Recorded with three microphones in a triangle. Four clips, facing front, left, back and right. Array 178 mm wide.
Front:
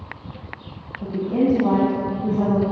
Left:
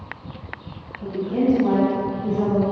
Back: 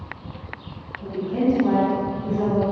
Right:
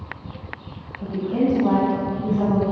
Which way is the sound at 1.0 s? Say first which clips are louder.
Left 1 dB, front 2 dB; 25° right.